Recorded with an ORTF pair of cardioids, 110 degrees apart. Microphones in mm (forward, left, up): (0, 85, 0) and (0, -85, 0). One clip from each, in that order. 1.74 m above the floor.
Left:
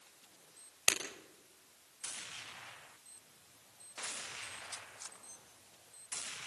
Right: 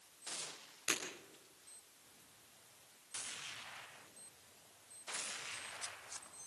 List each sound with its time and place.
0.9 s breaking glass: 65° left, 6 m